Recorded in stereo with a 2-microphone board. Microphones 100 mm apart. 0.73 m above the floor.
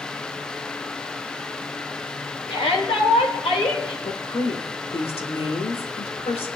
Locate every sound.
2.5 s a shout: 70° left (ahead or behind), 3 m; by 3.9 s 75° left (ahead or behind), 3.5 m
4.0 s a woman speaking: 75° left (ahead or behind), 2.0 m